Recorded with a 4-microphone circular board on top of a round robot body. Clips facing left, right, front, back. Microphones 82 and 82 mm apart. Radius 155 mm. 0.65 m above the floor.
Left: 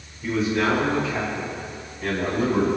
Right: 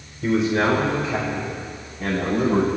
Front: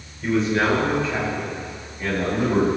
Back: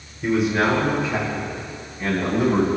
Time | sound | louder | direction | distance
0.2 | a man speaking | right 3 dB, back 1 dB | 100° right | 4 m